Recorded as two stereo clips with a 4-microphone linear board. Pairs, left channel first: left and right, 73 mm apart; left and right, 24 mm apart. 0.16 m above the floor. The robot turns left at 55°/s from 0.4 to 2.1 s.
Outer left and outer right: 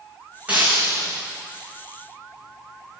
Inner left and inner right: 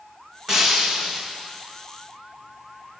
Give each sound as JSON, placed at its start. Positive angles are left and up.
{"t": 0.5, "sound": "breaking glass", "azimuth_deg": -20, "distance_m": 5.5}